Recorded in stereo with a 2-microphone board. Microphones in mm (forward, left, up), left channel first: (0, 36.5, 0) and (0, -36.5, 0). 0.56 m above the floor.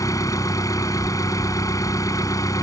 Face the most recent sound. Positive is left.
turn(degrees=50)  # may be behind; listen again after turning